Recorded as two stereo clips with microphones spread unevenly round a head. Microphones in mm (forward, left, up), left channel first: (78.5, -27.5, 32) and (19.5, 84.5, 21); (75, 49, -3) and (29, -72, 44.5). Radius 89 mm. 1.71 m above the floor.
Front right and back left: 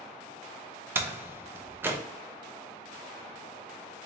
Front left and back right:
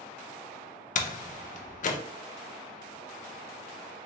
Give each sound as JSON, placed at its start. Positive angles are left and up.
{"t": 0.9, "sound": "a door slam", "azimuth_deg": 45, "distance_m": 0.6}